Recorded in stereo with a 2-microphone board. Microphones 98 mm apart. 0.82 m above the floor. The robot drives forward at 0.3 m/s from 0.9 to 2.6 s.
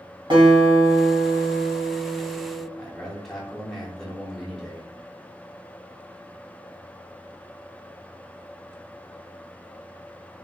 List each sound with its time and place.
0.3 s a guitar: 55° right (ahead or behind), 1.3 m; by 2.7 s 50° right (ahead or behind), 1.4 m
2.8 s a man speaking: 5° left (ahead or behind), 1.0 m